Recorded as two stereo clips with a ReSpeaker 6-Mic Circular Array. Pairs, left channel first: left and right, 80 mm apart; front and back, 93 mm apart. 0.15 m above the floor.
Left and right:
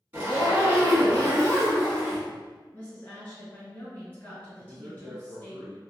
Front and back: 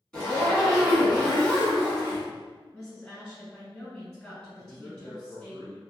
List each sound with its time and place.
0.1 s a zipper: 70° right, 1.7 m
2.7 s a woman speaking: 65° left, 1.5 m
4.6 s a man speaking: 100° right, 1.3 m